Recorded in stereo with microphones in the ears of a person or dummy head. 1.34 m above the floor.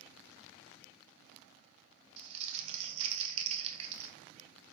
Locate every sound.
2.2 s crumpling: 40° right (ahead or behind), 0.5 m